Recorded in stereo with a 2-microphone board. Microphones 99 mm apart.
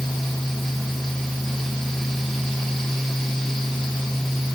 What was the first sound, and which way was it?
Only background noise.